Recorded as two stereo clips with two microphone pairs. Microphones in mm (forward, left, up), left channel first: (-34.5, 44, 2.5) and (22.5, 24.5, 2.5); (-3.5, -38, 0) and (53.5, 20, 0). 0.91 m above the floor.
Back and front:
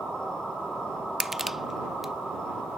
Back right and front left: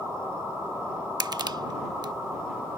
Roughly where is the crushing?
Left.